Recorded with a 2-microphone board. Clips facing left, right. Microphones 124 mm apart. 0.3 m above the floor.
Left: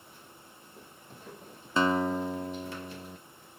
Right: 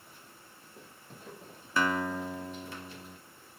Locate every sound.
1.8 s a guitar: 25° left (ahead or behind), 0.9 m